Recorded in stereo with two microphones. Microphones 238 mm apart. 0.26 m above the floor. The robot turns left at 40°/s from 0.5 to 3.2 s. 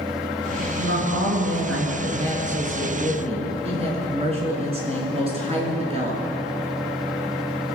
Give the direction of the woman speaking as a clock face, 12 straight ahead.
2 o'clock.